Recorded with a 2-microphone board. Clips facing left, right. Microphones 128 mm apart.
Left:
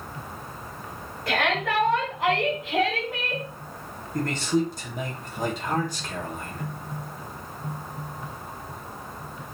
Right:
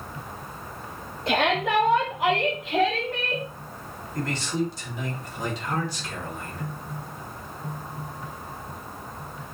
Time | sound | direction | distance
1.3 | a shout | 25° right (ahead or behind) | 2.0 m
4.1 | a man speaking | 50° left (ahead or behind) | 3 m